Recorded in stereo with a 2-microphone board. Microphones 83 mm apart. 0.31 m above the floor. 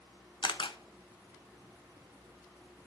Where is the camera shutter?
75° left (ahead or behind), 0.8 m.